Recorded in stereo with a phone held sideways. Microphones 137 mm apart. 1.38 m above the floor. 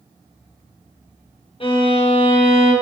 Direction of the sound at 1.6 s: 40° left (ahead or behind).